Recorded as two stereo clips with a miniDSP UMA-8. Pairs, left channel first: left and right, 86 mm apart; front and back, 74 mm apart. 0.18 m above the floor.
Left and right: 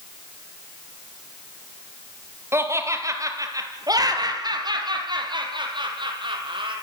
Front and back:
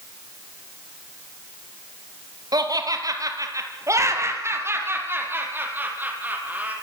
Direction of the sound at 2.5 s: 150° right.